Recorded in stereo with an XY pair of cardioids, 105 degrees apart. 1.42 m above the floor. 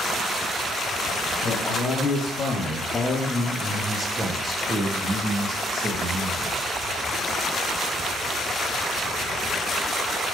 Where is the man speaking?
65° left, 1.3 m; by 6.6 s 50° right, 2 m.